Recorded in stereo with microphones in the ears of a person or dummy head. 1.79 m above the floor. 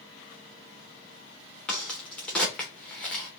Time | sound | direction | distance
1.7 | a crack | 5° left (ahead or behind) | 0.8 m